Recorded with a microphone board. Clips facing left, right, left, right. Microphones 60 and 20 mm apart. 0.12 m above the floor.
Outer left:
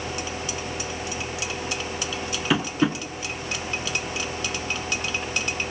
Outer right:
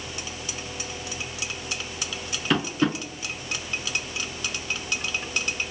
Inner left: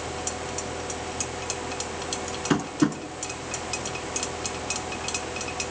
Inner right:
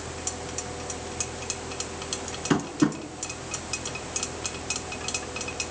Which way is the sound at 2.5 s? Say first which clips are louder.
Outer left 1 dB, even; 5° left (ahead or behind).